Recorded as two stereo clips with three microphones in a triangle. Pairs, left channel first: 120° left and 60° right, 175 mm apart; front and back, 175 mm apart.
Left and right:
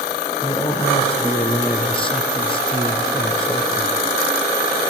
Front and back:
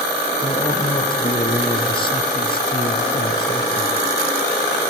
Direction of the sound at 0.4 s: 60° left.